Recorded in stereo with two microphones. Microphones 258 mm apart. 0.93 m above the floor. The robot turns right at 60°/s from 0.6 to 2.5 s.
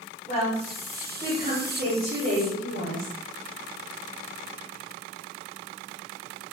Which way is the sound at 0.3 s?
175° left.